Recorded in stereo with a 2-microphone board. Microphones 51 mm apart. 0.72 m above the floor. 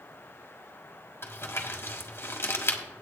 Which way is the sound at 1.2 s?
50° left (ahead or behind).